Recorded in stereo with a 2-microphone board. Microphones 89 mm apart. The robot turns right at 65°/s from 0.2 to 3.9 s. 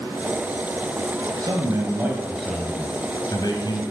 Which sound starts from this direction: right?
A man speaking, at 1.4 s.